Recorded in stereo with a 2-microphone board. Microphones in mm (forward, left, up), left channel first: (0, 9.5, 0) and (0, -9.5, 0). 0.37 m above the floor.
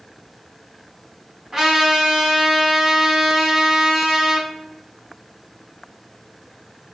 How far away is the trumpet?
About 1.3 m.